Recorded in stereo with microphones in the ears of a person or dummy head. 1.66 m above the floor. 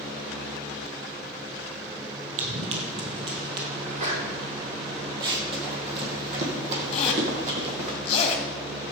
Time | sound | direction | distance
2.4 | running footsteps | 35° right (ahead or behind) | 2 m
3.8 | a sneeze | 40° right (ahead or behind) | 3.5 m
5.2 | running footsteps | 25° right (ahead or behind) | 2.5 m
6.9 | a zipper | 30° left (ahead or behind) | 1.8 m